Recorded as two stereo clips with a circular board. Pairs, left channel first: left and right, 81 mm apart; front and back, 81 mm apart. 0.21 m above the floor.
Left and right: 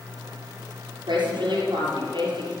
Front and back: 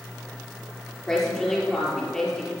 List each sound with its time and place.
1.1 s a woman speaking: 80° right, 5.5 m